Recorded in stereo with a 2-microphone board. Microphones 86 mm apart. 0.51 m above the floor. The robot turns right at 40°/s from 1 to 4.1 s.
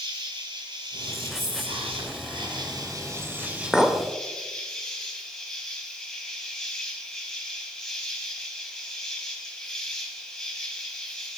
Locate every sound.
0.0 s an insect: 120° right, 1.3 m; by 11.4 s 5° left, 1.3 m
1.3 s whispering: 45° right (ahead or behind), 4 m; by 3.6 s 40° right (ahead or behind), 4 m
3.7 s a clink: 5° right (ahead or behind), 0.7 m; by 4.0 s 5° left (ahead or behind), 0.7 m